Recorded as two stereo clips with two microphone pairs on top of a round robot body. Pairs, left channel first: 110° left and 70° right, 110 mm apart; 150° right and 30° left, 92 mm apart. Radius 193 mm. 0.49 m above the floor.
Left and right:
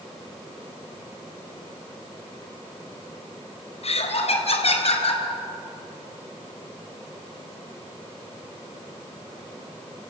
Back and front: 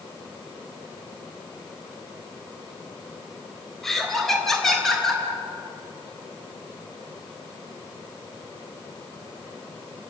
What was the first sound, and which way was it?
Laughter, 125° left.